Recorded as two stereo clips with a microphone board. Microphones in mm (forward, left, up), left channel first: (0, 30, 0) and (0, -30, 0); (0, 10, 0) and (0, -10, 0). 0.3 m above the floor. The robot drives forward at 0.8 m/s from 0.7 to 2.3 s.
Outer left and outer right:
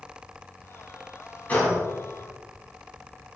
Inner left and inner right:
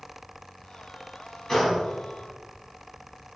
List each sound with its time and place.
1.5 s a gunshot: 25° left (ahead or behind), 1.2 m; by 1.9 s 20° left (ahead or behind), 1.4 m